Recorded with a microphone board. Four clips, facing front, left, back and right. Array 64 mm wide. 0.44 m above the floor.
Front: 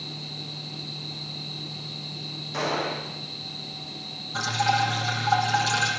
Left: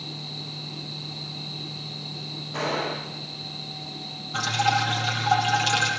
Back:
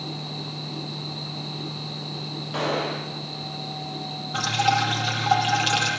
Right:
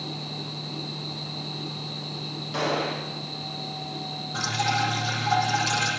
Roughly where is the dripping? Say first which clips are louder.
Left 3 dB, back 2 dB; behind.